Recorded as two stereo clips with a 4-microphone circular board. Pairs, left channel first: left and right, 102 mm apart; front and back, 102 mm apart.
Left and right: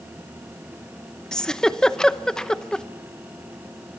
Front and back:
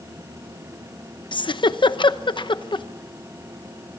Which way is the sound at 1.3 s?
10° left.